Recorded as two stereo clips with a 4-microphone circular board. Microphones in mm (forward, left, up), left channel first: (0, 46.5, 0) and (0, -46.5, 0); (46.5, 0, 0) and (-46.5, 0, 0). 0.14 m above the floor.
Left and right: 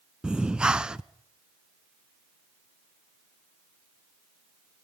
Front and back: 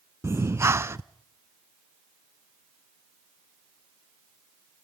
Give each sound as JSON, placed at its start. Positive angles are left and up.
{"t": 0.2, "sound": "breathing", "azimuth_deg": -160, "distance_m": 0.6}